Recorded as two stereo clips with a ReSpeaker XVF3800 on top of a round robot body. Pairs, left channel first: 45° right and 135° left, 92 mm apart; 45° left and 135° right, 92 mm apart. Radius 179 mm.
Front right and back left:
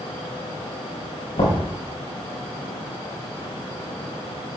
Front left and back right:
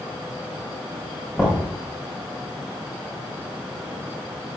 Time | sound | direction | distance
1.4 | knocking | 45° right | 3.5 m